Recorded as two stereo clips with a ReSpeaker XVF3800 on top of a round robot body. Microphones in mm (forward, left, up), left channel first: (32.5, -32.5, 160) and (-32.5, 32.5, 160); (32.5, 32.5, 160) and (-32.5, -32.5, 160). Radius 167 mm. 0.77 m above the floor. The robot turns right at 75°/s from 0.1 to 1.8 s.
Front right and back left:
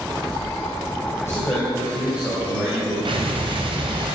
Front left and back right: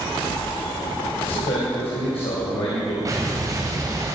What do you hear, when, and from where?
1.2 s a man speaking: 15° left, 3.5 m; by 3.0 s 60° left, 3.5 m
3.0 s an explosion: 165° left, 2 m